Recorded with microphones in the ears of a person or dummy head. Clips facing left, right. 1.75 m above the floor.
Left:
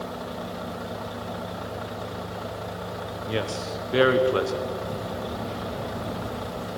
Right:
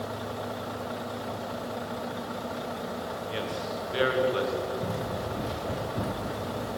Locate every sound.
3.3 s a man speaking: 55° left (ahead or behind), 1.3 m
4.8 s running footsteps: 15° right (ahead or behind), 3.5 m; by 6.7 s 25° right (ahead or behind), 4.5 m